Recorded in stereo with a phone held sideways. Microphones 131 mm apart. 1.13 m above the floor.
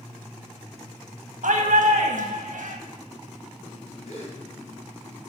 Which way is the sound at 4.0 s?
55° left (ahead or behind).